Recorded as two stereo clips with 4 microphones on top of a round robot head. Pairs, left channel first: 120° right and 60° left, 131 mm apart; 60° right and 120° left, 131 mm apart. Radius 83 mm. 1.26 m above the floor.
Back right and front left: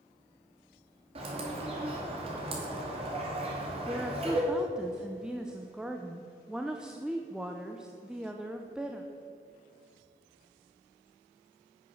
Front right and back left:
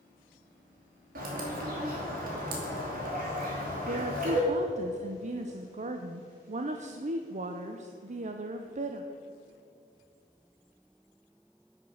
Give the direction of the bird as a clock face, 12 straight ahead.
8 o'clock.